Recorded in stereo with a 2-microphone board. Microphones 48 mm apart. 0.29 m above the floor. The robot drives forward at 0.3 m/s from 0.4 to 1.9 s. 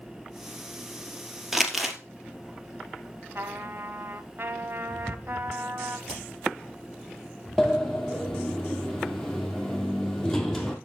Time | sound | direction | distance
1.5 | crumpling | 5° right (ahead or behind) | 1.6 m
3.4 | a trumpet | 50° right (ahead or behind) | 0.8 m
6.1 | hammering | 5° left (ahead or behind) | 5 m
7.6 | a sliding door | 5° left (ahead or behind) | 2 m